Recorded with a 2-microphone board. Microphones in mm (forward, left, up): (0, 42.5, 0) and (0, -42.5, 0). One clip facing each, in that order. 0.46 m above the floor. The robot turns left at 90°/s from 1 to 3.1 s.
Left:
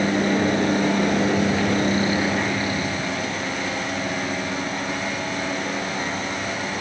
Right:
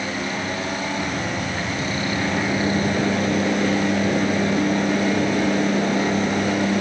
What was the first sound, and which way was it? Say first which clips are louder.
A helicopter: left 6 dB; 55° left (ahead or behind).